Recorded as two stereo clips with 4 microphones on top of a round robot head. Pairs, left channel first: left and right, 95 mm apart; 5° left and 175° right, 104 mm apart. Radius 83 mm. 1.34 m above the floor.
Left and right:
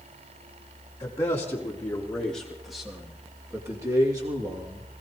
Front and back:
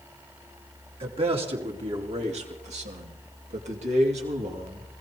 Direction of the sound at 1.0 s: 155° left.